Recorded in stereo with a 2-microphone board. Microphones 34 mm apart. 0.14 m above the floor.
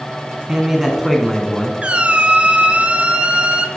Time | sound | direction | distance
0.5 | a man speaking | 20° right (ahead or behind) | 1.0 m
1.8 | a squeak | 35° right (ahead or behind) | 0.7 m